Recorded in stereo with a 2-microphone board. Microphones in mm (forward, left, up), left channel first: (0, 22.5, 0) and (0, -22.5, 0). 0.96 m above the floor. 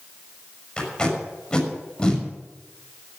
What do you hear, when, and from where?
0.8 s tape being pulled: 15° left (ahead or behind), 6 m